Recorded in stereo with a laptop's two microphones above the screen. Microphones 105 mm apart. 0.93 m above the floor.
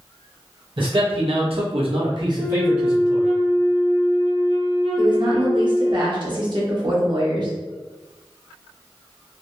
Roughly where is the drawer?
No drawer in this recording.